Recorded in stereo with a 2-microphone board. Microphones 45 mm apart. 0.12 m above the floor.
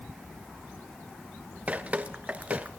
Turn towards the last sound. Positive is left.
turn(degrees=-35)  # may be behind; listen again after turning